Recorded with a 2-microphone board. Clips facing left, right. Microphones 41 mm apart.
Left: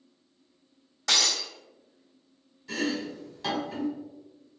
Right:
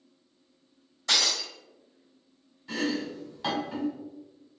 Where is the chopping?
10° right (ahead or behind), 1.7 m.